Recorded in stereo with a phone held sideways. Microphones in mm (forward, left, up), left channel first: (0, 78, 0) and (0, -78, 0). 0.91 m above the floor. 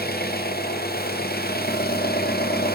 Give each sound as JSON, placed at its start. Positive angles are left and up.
{"t": 0.0, "sound": "an engine running", "side_deg": 80, "distance_m": 1.1}